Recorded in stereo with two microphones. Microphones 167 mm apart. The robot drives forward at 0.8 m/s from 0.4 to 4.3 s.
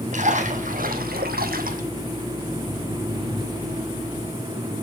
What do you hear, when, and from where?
0.1 s a splash: 50° right (ahead or behind), 1.1 m; by 1.8 s 60° right (ahead or behind), 1.0 m